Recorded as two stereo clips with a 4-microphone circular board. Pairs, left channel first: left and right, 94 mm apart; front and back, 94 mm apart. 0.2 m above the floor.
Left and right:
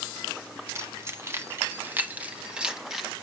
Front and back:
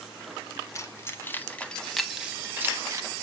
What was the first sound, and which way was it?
Keys jangling, 40° right.